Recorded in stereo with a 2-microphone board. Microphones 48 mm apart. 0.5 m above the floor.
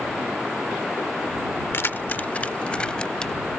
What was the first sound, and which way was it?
Keys jangling, 55° left (ahead or behind).